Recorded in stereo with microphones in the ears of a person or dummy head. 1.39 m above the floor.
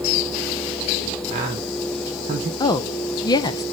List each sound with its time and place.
1.3 s a man speaking: 40° right (ahead or behind), 1.4 m
2.6 s a woman speaking: 20° left (ahead or behind), 0.7 m